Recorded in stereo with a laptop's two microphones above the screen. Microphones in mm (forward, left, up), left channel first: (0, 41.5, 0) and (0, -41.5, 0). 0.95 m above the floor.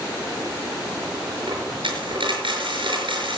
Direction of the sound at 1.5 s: 80° right.